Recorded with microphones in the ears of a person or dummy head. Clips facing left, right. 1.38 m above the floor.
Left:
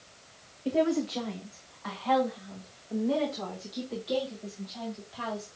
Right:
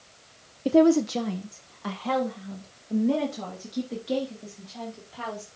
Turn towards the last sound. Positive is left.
turn(degrees=-35)  # may be behind; listen again after turning